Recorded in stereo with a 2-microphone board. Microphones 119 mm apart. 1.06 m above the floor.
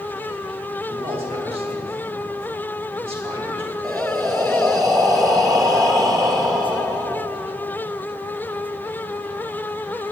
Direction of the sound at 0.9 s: 55° right (ahead or behind).